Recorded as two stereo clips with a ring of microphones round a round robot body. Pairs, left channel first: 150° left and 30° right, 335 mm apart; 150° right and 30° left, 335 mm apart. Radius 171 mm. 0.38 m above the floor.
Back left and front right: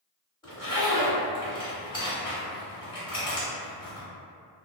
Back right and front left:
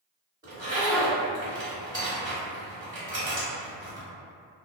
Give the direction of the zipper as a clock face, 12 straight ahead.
9 o'clock.